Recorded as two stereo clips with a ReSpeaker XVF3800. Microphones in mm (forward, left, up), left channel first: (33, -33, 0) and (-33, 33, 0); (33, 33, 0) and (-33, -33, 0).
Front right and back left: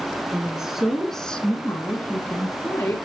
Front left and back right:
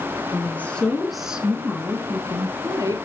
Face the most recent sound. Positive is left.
turn(degrees=-105)